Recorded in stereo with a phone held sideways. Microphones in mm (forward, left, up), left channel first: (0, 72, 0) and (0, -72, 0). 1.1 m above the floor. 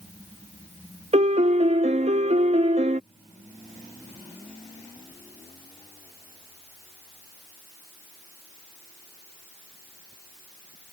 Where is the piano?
50° right (ahead or behind).